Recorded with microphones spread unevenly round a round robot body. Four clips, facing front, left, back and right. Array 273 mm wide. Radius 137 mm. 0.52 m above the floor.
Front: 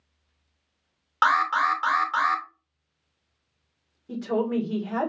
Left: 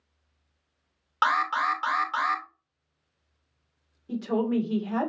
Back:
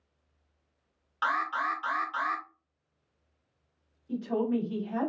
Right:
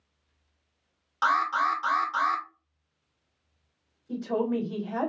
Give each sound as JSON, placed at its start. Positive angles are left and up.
{"t": 1.2, "sound": "an alarm", "azimuth_deg": 30, "distance_m": 1.5}
{"t": 4.1, "sound": "a woman speaking", "azimuth_deg": 40, "distance_m": 2.0}